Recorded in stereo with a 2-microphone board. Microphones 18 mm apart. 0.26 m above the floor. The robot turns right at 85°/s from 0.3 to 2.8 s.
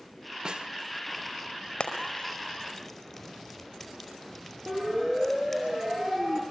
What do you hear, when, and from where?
0.5 s a snare drum: 45° right (ahead or behind), 0.9 m; by 0.7 s 55° right (ahead or behind), 0.9 m
1.8 s frying: 80° left, 5 m; by 5.6 s centre (ahead or behind), 5 m
4.7 s a siren: 30° right (ahead or behind), 8 m